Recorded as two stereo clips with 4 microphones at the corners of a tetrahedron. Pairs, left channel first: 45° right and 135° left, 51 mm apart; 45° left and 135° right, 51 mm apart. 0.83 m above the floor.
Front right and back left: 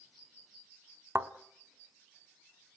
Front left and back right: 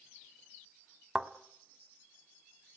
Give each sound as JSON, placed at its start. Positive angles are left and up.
{"t": 1.1, "sound": "a thud", "azimuth_deg": 145, "distance_m": 1.0}